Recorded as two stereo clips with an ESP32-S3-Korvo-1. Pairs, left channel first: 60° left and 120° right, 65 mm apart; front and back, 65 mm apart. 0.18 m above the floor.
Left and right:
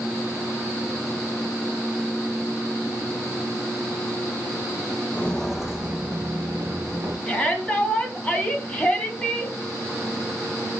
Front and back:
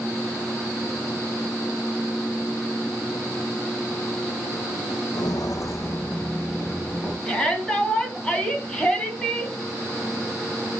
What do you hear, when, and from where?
5.1 s footsteps: 5° right, 0.6 m; by 7.2 s 75° right, 1.5 m
7.3 s a shout: 45° left, 1.0 m